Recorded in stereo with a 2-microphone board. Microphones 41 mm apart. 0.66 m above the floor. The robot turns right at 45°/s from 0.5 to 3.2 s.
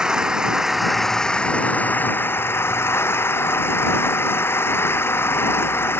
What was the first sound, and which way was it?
An engine running, 15° right.